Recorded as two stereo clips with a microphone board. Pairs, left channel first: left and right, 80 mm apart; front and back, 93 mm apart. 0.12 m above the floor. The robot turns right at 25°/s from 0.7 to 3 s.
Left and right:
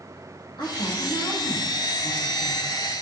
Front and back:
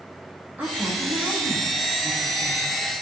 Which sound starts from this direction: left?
A woman speaking, at 0.6 s.